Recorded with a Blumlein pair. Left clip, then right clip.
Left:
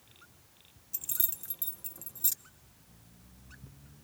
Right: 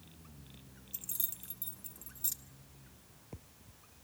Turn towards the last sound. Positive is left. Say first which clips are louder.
# left 5 dB
turn(degrees=15)